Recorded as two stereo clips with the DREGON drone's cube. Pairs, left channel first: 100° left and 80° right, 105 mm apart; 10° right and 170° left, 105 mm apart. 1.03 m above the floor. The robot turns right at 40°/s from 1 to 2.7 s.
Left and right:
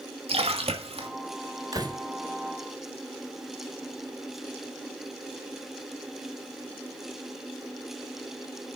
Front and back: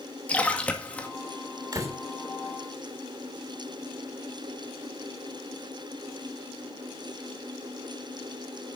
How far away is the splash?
About 2 m.